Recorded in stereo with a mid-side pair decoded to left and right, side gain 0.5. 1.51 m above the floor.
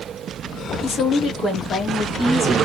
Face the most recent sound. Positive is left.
turn(degrees=25)